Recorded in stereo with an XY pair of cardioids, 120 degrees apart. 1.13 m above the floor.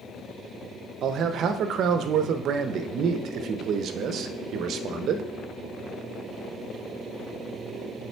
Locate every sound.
1.0 s a man speaking: 60° right, 0.7 m